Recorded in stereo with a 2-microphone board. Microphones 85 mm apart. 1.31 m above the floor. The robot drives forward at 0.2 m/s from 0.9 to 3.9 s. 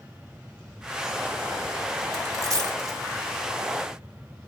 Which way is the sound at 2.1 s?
40° right (ahead or behind).